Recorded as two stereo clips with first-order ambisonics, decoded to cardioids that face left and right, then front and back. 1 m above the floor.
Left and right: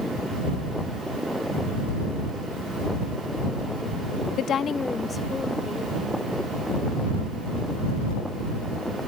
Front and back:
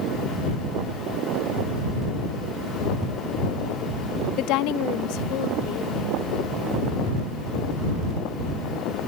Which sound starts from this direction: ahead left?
A woman speaking, at 4.4 s.